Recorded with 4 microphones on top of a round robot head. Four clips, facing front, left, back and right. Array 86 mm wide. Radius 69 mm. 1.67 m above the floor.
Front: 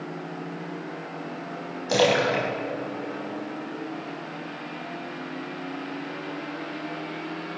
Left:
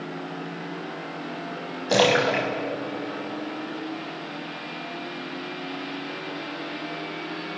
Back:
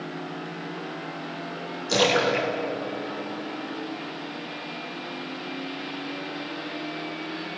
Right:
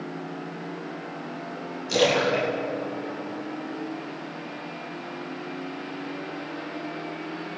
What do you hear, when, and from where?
1.9 s a splash: 65° left, 6.5 m